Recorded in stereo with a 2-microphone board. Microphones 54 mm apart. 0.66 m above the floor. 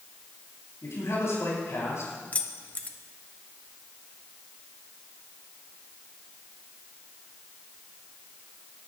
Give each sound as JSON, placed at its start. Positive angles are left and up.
{"t": 0.8, "sound": "a man speaking", "side_deg": 65, "distance_m": 6.0}
{"t": 2.3, "sound": "keys jangling", "side_deg": 30, "distance_m": 0.8}